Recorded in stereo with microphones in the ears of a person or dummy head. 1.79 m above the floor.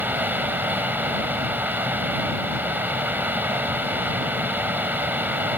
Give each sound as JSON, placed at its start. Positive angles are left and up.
{"t": 0.0, "sound": "a fan", "side_deg": -10}